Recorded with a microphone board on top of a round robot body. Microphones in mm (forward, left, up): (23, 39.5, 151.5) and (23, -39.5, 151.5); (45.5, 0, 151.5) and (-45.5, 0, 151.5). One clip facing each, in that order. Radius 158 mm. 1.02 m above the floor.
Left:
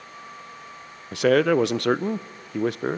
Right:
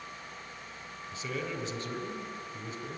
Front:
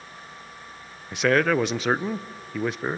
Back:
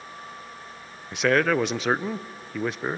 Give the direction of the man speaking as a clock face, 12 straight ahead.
9 o'clock.